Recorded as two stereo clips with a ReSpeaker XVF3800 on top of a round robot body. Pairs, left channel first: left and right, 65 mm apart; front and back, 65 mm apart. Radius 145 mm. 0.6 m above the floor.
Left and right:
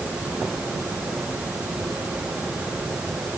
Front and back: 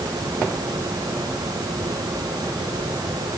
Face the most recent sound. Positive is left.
No sound to turn to.